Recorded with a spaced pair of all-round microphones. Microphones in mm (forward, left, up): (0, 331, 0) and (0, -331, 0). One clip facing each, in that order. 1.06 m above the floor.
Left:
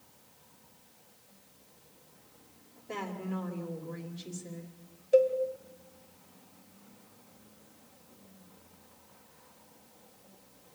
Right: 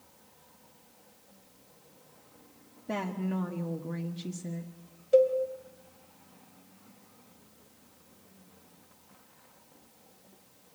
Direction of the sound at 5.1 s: 30° right (ahead or behind).